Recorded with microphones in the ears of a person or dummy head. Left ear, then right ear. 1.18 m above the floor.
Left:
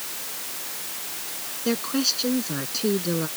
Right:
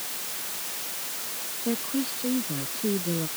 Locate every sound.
1.6 s a woman speaking: 75° left (ahead or behind)